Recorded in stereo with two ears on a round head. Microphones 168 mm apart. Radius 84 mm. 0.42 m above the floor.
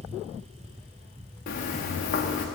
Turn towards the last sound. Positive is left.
turn(degrees=45)  # may be behind; listen again after turning